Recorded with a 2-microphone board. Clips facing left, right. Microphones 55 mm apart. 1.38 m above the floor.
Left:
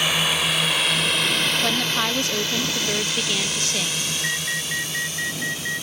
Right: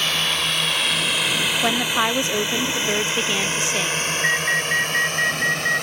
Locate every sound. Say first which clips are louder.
0.0 s a drone: left 1 dB; 10° left (ahead or behind); by 5.8 s 60° right (ahead or behind)
1.6 s a woman speaking: right 3 dB; 20° right (ahead or behind)
4.2 s an alarm: right 9 dB; 35° right (ahead or behind)